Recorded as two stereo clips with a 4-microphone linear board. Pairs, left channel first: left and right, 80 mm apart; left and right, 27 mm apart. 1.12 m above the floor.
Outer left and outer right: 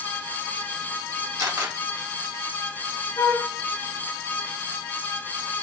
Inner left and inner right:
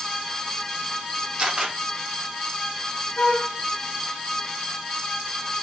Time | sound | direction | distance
1.4 | a camera shutter | 45° right (ahead or behind) | 1.1 m
3.2 | a flute | 35° left (ahead or behind) | 0.8 m